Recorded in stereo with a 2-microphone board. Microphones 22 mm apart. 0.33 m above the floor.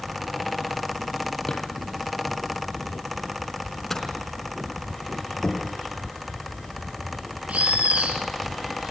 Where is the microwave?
15° left (ahead or behind), 4 m.